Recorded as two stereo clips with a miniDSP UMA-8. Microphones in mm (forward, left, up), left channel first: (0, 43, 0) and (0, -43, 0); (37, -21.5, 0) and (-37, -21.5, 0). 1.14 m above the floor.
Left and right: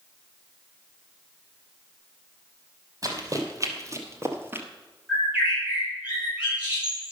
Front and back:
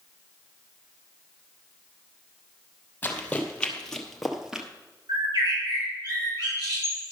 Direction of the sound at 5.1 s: 165° right.